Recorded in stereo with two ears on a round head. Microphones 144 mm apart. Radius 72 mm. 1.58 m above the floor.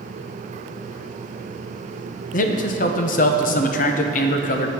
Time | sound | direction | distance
2.3 | a man speaking | 50° left (ahead or behind) | 0.7 m